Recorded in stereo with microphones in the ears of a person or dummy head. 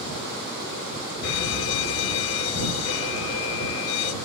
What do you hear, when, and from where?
1.2 s a fire alarm: 80° left